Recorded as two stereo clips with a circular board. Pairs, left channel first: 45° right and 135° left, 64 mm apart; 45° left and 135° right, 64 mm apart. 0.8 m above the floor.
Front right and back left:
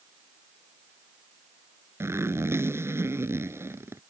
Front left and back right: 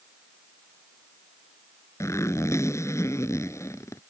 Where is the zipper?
85° left.